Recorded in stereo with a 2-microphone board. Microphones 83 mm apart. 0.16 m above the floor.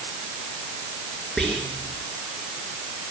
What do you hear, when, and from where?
1.4 s whispering: 10° left (ahead or behind), 1.9 m